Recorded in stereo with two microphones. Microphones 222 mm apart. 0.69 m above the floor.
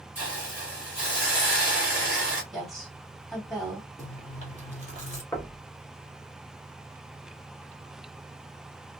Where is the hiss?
10° right (ahead or behind), 1.8 m.